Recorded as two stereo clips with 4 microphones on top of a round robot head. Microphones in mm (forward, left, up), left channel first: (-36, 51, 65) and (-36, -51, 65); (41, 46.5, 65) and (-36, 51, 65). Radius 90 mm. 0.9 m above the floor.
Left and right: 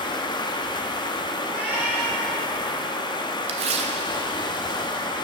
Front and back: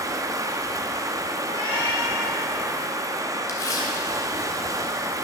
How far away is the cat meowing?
About 3 m.